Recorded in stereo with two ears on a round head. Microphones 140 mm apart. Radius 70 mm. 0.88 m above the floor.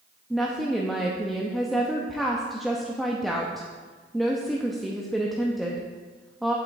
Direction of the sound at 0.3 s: Centre (ahead or behind).